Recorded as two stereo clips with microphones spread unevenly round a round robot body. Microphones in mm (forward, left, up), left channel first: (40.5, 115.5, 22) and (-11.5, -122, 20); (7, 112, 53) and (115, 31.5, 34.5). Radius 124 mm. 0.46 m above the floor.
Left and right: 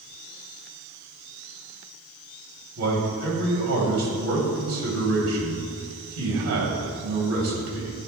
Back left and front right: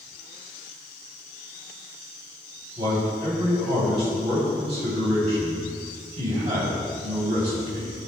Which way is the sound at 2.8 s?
80° right.